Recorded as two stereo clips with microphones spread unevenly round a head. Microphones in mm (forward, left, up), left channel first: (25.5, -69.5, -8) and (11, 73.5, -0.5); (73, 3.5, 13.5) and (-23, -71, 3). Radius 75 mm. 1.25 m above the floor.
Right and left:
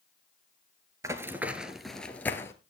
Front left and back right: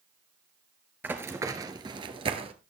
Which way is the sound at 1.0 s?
145° left.